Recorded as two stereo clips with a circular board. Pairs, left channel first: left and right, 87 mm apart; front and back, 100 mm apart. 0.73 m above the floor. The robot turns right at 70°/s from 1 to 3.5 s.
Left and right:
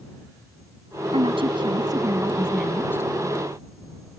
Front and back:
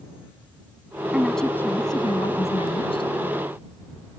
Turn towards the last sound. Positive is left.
turn(degrees=65)